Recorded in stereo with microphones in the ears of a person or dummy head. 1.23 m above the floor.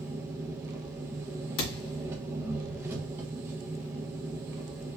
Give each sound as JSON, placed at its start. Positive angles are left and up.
{"t": 0.0, "sound": "an engine running", "side_deg": -15, "distance_m": 0.8}
{"t": 1.6, "sound": "a thud", "side_deg": 65, "distance_m": 2.0}